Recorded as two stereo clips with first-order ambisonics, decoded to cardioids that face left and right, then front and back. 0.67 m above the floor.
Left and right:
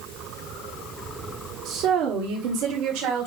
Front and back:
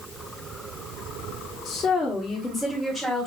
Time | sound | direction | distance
1.6 | a woman speaking | 50° right | 1.3 m